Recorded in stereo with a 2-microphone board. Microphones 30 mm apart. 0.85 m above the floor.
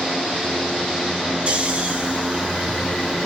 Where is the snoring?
40° right (ahead or behind), 1.2 m.